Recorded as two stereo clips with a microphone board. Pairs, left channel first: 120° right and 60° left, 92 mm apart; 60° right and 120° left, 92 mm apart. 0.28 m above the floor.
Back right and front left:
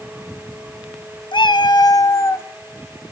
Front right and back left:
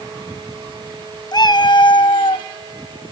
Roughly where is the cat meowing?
Right.